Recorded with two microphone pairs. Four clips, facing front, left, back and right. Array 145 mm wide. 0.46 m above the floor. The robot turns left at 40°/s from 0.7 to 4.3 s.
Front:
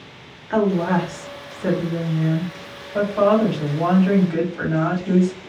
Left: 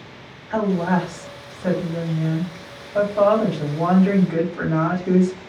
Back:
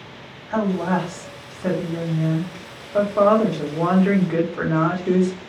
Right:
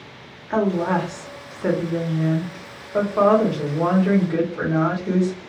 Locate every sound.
0.5 s a woman speaking: 40° right, 1.2 m; by 5.4 s straight behind, 1.2 m